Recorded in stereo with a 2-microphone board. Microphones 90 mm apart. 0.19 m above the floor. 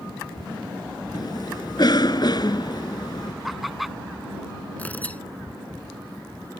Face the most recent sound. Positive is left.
turn(degrees=15)  # may be behind; listen again after turning